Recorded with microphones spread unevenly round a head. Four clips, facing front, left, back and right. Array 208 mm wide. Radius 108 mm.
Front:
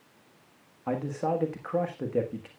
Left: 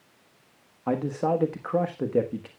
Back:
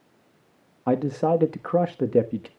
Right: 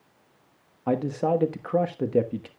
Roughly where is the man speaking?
Behind.